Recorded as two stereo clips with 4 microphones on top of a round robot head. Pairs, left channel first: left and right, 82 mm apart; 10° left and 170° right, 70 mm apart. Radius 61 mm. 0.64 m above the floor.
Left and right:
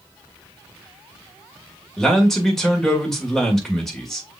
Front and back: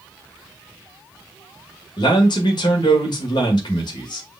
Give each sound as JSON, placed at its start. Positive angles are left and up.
{"t": 2.0, "sound": "a man speaking", "azimuth_deg": 5, "distance_m": 2.0}